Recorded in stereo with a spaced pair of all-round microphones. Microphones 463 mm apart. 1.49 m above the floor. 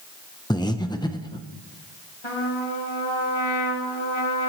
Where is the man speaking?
No man speaking in this recording.